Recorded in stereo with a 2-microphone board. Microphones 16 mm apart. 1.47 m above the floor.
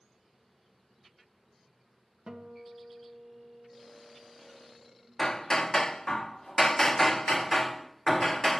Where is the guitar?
80° right, 2 m.